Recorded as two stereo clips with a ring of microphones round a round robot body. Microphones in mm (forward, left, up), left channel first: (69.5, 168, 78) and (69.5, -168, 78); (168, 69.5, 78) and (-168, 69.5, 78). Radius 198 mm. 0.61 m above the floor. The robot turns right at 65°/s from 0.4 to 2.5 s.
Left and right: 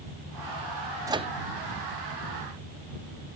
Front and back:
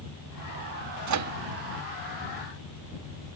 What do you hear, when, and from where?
1.1 s a microwave: 170° right; by 1.3 s 155° right